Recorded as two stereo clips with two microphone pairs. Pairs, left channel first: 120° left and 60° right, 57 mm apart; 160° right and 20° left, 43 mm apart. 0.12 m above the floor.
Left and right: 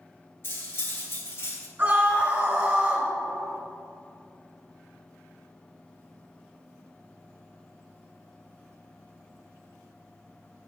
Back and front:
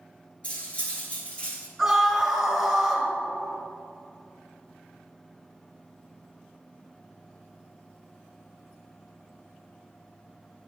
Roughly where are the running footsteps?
No running footsteps in this recording.